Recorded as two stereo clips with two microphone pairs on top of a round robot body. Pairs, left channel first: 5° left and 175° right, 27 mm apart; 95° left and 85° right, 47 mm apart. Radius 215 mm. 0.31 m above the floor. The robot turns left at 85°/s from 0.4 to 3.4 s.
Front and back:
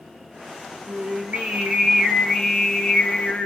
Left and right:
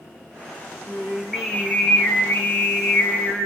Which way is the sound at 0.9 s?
130° right.